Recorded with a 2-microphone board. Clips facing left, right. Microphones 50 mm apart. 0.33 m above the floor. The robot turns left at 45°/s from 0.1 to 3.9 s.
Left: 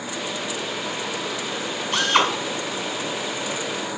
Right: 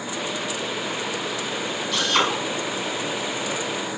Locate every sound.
1.9 s a drill: 35° left (ahead or behind), 1.6 m; by 2.3 s 20° left (ahead or behind), 1.6 m